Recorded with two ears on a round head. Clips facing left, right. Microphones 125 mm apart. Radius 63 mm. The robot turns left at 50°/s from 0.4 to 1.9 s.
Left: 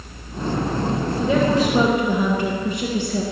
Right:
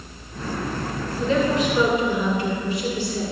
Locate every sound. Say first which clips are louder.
1.2 s a woman speaking: left 2 dB; 175° left, 1.6 m; by 3.2 s 135° left, 1.6 m